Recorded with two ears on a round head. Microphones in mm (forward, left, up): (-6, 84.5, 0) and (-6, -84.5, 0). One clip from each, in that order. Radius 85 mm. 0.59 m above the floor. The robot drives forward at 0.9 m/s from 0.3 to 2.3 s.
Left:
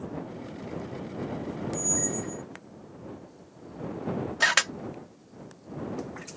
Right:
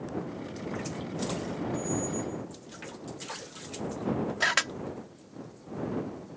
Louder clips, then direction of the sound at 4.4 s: Left 4 dB; 20° left (ahead or behind).